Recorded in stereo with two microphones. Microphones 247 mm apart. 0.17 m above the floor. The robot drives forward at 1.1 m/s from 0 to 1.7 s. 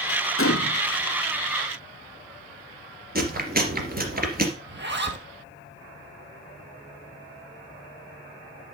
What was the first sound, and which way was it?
A gunshot, 55° left (ahead or behind).